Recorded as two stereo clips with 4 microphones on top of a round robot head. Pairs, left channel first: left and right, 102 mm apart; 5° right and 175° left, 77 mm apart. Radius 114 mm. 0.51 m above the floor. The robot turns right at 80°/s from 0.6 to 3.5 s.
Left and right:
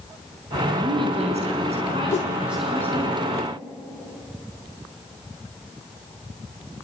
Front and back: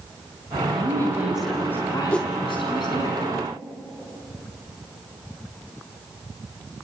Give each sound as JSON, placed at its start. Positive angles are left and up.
{"t": 0.7, "sound": "a woman speaking", "azimuth_deg": -155, "distance_m": 6.0}
{"t": 2.1, "sound": "a whoosh", "azimuth_deg": 70, "distance_m": 0.5}